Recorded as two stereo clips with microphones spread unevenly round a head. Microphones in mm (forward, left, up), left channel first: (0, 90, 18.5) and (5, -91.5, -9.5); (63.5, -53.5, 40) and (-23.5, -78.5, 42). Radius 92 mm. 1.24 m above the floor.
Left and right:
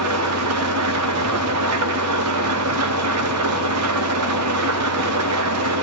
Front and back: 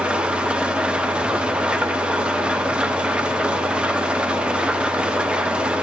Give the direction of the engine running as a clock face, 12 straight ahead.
3 o'clock.